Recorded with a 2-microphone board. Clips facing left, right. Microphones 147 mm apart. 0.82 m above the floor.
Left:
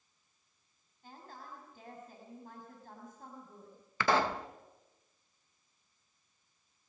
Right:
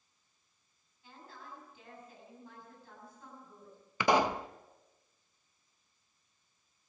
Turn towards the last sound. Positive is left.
turn(degrees=-15)  # may be behind; listen again after turning